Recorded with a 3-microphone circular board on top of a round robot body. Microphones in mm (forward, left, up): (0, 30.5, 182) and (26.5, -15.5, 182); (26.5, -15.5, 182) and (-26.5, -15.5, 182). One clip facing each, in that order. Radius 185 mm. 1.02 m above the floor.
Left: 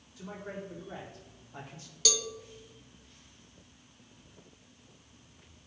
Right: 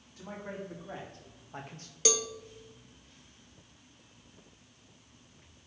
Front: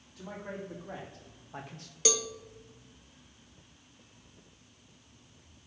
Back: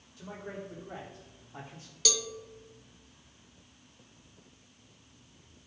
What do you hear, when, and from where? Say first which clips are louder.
0.2 s a man speaking: even, front 1 dB; 10° right, 3.5 m; by 1.9 s 25° right, 1.2 m
2.0 s a cowbell: right 3 dB, front 3 dB; 35° right, 0.7 m